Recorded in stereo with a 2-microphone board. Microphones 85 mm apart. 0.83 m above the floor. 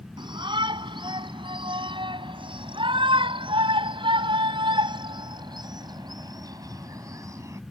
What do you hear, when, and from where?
0.2 s a shout: 65° right (ahead or behind); by 7.6 s 35° right (ahead or behind)